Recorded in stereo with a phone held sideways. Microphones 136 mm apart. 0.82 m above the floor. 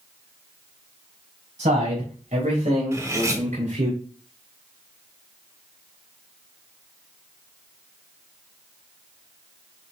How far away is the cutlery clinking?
About 1.3 m.